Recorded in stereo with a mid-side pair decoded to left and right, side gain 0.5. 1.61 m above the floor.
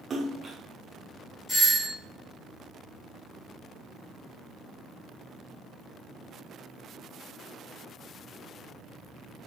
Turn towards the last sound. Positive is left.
turn(degrees=50)